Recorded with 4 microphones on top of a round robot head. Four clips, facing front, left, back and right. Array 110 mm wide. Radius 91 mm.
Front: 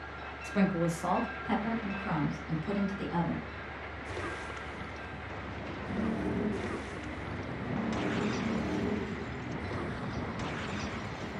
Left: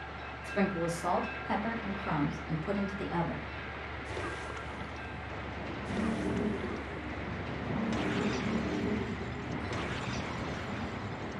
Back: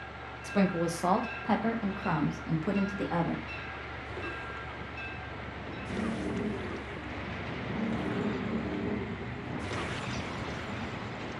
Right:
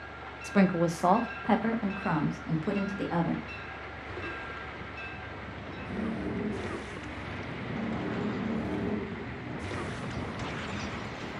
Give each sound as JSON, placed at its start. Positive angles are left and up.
{"t": 0.4, "sound": "a woman speaking", "azimuth_deg": -95, "distance_m": 1.3}